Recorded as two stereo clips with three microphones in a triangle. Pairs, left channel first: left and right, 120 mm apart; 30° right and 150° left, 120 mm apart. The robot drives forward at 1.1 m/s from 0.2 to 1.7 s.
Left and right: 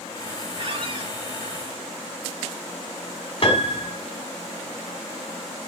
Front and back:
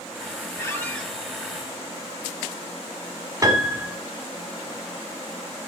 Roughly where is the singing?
I don't hear singing.